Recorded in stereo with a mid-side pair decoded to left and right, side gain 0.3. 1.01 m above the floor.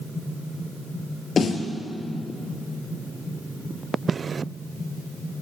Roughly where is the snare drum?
Left.